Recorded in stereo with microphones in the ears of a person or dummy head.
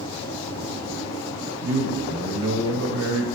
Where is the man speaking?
75° right (ahead or behind), 0.7 m.